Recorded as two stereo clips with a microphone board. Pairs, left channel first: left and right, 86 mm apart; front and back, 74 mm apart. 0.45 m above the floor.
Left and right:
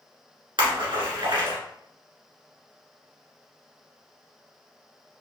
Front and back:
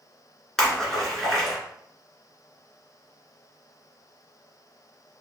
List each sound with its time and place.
0.6 s a splash: 80° right, 1.7 m